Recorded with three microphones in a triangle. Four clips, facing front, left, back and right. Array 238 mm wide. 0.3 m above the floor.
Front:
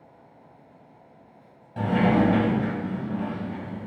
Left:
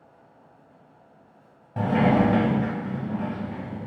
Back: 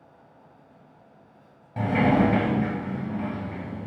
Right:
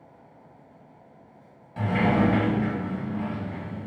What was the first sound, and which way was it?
A sliding door, 110° left.